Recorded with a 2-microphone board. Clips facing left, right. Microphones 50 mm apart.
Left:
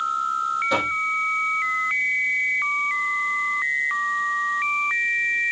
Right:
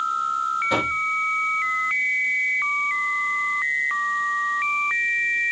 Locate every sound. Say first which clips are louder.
0.7 s knocking: even; 5° right (ahead or behind), 5.5 m